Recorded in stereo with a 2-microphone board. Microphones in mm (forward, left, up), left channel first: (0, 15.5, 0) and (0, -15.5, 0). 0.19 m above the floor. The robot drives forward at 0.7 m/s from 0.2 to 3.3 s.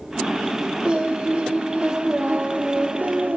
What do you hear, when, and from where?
0.8 s singing: 35° right (ahead or behind), 3 m; by 3.4 s 65° right (ahead or behind), 1.9 m